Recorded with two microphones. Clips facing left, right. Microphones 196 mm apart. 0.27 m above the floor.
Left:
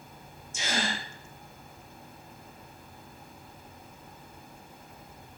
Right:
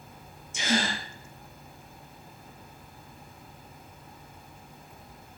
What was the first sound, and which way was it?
A gasp, 80° right.